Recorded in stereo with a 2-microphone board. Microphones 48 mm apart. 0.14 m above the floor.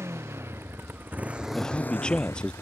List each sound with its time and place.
0.0 s a motorcycle: 60° right (ahead or behind); by 2.6 s 75° left (ahead or behind)
1.6 s a man speaking: 20° left (ahead or behind)